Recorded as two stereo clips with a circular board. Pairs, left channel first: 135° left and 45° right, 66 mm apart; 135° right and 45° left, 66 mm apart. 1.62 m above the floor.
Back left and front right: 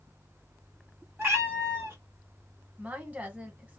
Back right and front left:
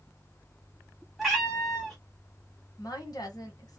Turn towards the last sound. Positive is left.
turn(degrees=-110)